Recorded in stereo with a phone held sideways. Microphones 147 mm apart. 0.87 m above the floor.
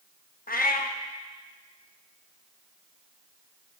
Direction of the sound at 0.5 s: 80° left.